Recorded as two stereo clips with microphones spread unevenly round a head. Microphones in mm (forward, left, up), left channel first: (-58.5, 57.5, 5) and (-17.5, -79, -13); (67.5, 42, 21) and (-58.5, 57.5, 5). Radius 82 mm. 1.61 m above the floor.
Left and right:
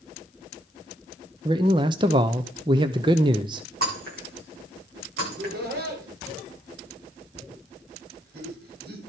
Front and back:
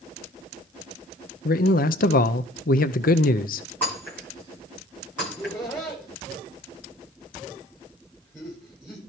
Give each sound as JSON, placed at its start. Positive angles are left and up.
{"t": 1.4, "sound": "a man speaking", "azimuth_deg": -5, "distance_m": 0.6}
{"t": 3.8, "sound": "breaking glass", "azimuth_deg": -85, "distance_m": 10.0}
{"t": 5.2, "sound": "laughter", "azimuth_deg": -85, "distance_m": 5.5}